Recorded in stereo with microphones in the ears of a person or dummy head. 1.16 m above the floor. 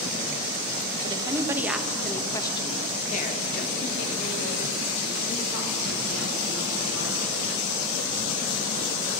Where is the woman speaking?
20° right (ahead or behind), 1.1 m; by 7.6 s 85° left, 3.5 m.